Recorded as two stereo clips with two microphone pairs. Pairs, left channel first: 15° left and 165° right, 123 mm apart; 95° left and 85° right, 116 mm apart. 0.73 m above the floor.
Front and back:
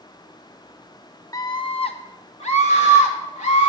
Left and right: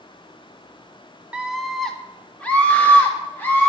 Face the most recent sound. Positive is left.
turn(degrees=25)